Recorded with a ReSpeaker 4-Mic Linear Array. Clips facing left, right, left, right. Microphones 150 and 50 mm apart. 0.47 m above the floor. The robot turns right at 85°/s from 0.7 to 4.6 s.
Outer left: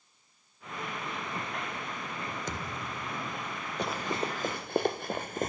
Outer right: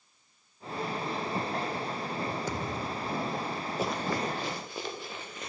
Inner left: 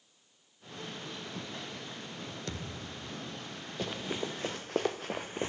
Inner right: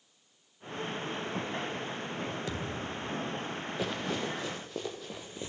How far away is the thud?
About 2.5 m.